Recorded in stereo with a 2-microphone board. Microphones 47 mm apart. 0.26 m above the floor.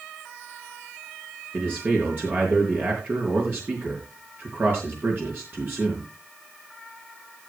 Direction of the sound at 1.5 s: 50° right (ahead or behind).